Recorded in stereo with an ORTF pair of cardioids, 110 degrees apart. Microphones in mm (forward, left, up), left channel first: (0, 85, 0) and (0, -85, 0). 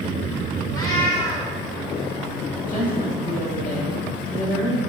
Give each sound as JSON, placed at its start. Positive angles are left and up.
{"t": 0.7, "sound": "a cat meowing", "azimuth_deg": 25, "distance_m": 1.8}
{"t": 2.6, "sound": "a woman speaking", "azimuth_deg": 50, "distance_m": 3.0}